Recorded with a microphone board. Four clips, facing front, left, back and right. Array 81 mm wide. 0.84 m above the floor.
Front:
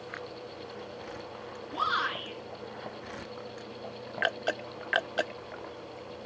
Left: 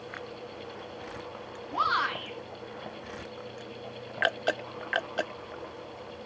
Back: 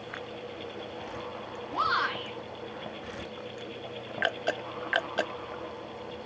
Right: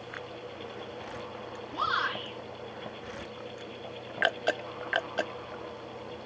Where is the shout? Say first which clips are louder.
Left 3 dB, back 2 dB; 125° left, 9 m.